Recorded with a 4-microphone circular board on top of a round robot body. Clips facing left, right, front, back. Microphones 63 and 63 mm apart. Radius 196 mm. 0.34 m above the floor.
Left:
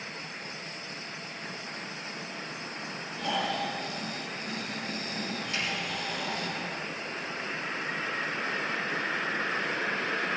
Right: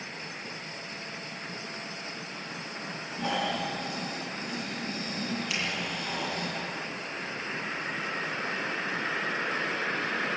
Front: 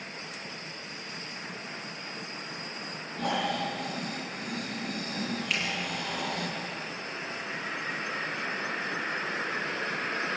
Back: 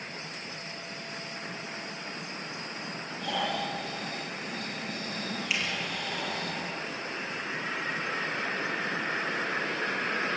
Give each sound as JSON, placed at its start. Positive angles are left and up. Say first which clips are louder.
{"t": 3.2, "sound": "snoring", "louder": "even, front 2 dB", "azimuth_deg": -25, "distance_m": 5.0}
{"t": 5.5, "sound": "a finger snap", "louder": "left 2 dB, back 1 dB", "azimuth_deg": -95, "distance_m": 8.5}